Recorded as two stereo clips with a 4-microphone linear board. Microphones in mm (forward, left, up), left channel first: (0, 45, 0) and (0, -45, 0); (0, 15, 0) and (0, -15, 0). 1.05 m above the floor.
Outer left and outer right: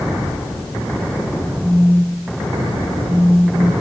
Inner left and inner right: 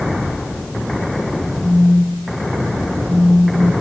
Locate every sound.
1.6 s a phone buzzing: 20° right (ahead or behind), 1.6 m